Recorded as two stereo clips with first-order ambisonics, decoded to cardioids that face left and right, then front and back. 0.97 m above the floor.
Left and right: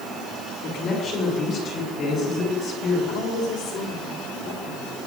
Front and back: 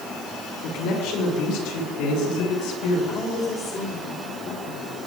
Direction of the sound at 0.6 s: 25° left.